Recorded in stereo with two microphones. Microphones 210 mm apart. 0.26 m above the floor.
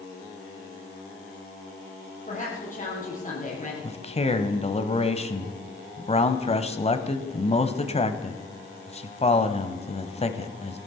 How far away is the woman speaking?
About 7 m.